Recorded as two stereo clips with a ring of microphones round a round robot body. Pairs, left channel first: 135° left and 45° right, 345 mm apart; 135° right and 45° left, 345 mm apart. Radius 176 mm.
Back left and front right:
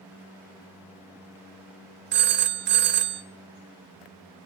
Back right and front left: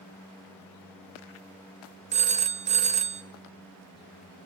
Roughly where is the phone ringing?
Ahead.